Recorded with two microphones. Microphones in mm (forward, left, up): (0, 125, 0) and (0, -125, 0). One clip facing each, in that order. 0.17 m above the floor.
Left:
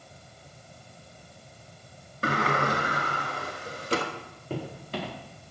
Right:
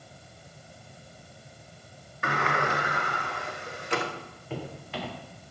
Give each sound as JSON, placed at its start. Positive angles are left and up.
{"t": 2.2, "sound": "a sliding door", "side_deg": 40, "distance_m": 1.1}
{"t": 4.5, "sound": "footsteps", "side_deg": 45, "distance_m": 3.5}